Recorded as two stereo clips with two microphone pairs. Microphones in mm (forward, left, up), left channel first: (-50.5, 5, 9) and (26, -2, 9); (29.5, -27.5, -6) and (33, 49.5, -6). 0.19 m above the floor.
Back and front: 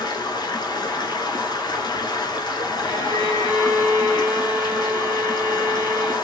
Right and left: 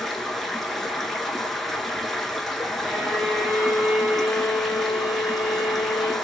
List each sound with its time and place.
0.0 s running water: straight behind, 0.8 m
2.9 s a violin: 170° left, 3 m